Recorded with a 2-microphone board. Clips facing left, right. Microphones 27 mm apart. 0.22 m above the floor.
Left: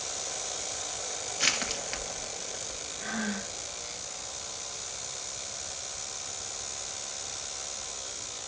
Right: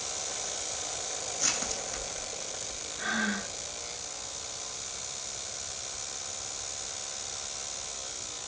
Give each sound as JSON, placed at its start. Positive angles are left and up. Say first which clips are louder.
{"t": 1.4, "sound": "crushing", "louder": "left 5 dB", "side_deg": 65, "distance_m": 1.1}
{"t": 3.0, "sound": "breathing", "louder": "right 4 dB", "side_deg": -45, "distance_m": 1.1}